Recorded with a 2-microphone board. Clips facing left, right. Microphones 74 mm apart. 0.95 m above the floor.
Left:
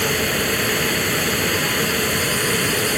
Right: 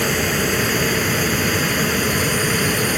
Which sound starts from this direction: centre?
Running water, at 0.0 s.